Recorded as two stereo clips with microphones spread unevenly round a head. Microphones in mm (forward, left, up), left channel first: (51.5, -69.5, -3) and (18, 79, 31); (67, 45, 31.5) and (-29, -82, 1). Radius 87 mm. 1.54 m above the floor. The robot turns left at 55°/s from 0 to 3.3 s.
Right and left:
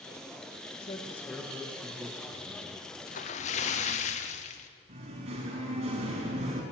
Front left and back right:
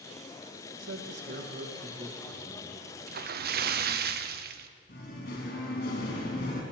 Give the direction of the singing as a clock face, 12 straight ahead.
10 o'clock.